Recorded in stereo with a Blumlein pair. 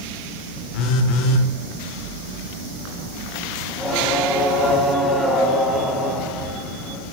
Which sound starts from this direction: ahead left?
A phone buzzing, at 0.7 s.